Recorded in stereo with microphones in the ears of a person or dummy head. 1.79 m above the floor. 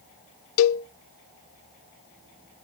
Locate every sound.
0.6 s a cowbell: 75° left (ahead or behind), 0.5 m